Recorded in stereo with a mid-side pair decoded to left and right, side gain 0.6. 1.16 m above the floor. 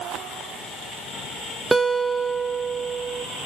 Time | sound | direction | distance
1.7 | a guitar | 10° right | 0.8 m